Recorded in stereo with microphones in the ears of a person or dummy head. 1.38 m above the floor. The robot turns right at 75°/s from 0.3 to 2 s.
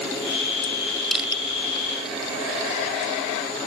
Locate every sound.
1.1 s crushing: centre (ahead or behind); by 1.4 s 25° right (ahead or behind)